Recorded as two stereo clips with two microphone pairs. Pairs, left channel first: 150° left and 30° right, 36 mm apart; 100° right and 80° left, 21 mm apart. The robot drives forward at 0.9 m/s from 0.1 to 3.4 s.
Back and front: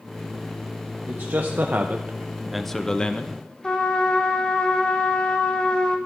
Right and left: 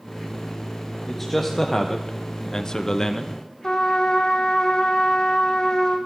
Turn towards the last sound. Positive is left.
turn(degrees=-140)